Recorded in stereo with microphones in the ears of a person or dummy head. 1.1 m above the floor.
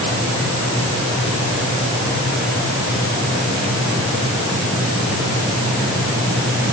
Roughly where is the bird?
No bird in this recording.